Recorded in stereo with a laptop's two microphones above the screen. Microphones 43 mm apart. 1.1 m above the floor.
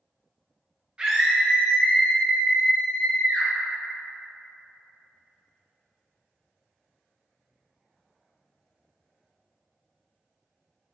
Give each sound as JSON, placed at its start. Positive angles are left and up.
{"t": 1.0, "sound": "a scream", "side_deg": -20, "distance_m": 1.0}